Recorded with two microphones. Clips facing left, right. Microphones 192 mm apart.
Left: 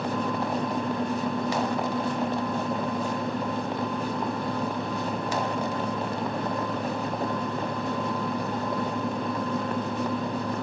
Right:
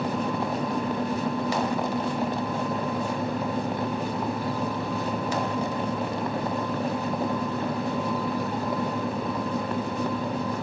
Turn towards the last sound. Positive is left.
No sound to turn to.